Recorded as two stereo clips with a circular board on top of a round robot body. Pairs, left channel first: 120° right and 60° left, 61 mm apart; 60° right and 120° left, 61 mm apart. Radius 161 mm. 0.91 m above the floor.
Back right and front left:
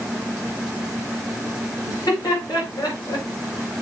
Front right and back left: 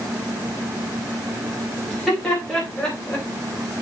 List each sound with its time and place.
1.9 s laughter: 145° right, 4.5 m; by 3.3 s 135° right, 3.5 m